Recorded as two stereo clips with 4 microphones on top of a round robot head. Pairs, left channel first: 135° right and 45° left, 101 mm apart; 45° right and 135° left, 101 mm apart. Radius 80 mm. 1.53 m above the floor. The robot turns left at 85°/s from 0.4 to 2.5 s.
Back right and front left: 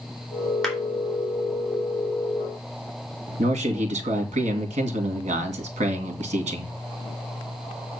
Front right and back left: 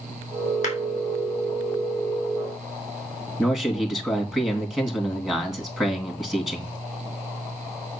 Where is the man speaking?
50° left, 2.5 m.